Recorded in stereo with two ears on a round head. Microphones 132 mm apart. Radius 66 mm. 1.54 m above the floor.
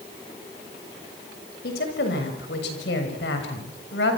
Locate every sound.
1.6 s a woman speaking: 70° left (ahead or behind), 6.5 m; by 4.2 s 85° left, 7.5 m